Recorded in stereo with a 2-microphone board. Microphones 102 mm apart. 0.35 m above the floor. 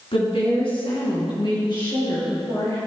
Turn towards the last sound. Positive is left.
turn(degrees=40)  # may be behind; listen again after turning